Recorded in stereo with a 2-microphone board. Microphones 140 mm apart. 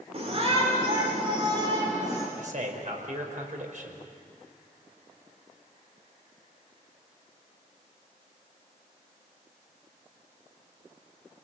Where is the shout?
50° right (ahead or behind), 3.5 m; by 2.3 s 30° right (ahead or behind), 3 m.